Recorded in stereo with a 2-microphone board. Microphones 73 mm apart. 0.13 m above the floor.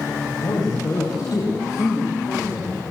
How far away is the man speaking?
About 6.5 m.